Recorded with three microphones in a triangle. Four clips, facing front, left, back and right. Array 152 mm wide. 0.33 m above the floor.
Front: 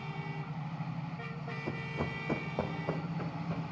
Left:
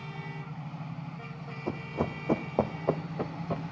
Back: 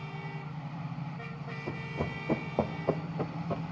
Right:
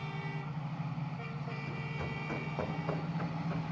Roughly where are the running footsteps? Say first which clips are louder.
Left 8 dB, back 2 dB; left.